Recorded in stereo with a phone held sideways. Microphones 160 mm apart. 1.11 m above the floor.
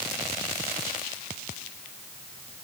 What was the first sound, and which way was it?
Only background noise.